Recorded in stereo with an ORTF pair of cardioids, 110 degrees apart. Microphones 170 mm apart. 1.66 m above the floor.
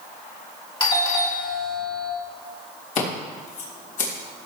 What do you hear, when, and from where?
0.8 s a doorbell: 30° left, 3.5 m
3.0 s scissors: 50° left, 4.5 m